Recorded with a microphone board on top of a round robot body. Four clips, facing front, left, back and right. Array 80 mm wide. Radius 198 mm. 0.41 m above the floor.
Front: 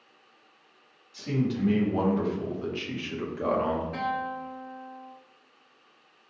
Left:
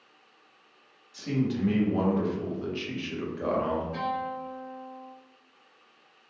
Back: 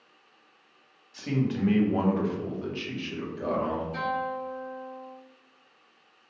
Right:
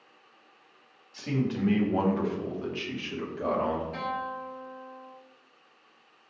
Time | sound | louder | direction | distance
1.1 | a man speaking | left 1 dB, even | 150° right | 1.6 m
3.9 | a guitar | left 2 dB, back 1 dB | 5° right | 1.7 m